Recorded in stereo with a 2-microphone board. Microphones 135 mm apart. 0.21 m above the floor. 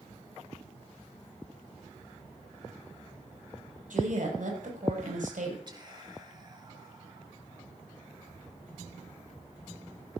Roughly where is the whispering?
Right.